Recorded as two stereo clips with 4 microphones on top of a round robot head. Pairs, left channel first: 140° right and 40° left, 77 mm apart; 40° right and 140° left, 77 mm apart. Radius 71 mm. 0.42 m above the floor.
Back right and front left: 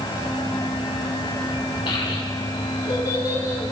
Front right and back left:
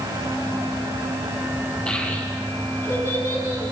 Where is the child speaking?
120° right, 2.5 m; by 3.7 s 90° right, 3.5 m.